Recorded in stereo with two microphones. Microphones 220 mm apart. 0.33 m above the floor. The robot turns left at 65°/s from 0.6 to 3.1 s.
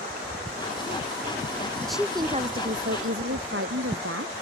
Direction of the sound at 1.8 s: 5° left.